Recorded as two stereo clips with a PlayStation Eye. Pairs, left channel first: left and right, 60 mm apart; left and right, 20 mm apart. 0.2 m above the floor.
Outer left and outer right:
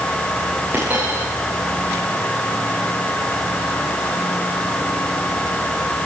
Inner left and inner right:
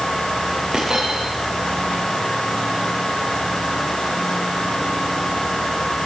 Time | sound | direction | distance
0.7 | a dropped coin | 30° right (ahead or behind) | 9 m